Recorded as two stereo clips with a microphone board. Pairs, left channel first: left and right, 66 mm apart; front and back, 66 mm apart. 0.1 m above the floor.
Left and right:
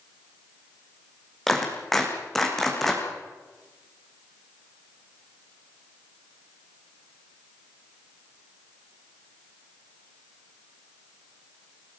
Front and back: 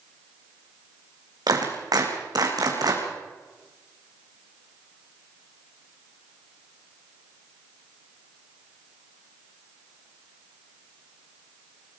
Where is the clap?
175° left, 4.5 m.